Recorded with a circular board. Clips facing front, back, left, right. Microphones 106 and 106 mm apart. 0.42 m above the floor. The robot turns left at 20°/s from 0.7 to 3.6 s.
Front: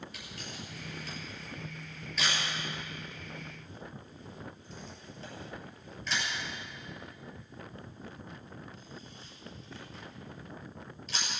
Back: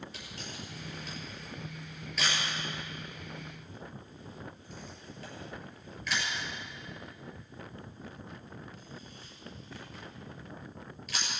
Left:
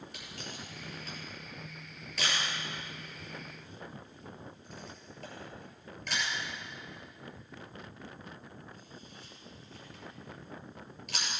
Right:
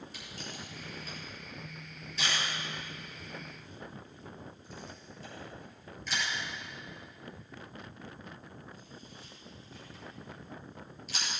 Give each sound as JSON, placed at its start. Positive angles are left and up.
{"t": 0.1, "sound": "a camera shutter", "azimuth_deg": 120, "distance_m": 6.5}